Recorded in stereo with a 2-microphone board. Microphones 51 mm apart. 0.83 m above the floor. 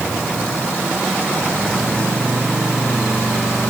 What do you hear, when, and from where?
Only background noise.